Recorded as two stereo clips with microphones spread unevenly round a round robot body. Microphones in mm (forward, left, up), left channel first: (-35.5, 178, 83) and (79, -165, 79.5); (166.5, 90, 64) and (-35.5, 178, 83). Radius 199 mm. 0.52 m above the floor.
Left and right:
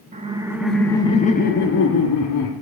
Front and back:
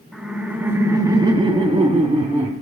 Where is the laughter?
100° right, 1.1 m; by 2.5 s 100° left, 1.4 m.